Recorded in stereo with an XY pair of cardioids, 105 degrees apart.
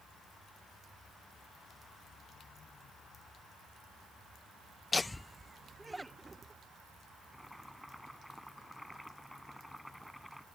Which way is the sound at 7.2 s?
Straight ahead.